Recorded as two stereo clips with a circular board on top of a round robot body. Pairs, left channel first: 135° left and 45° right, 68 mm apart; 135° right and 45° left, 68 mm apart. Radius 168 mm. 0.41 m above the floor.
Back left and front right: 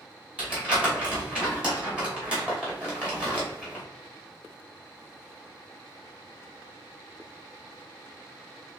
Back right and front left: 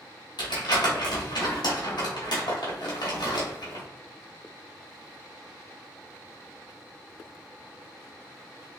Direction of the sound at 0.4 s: 120° right.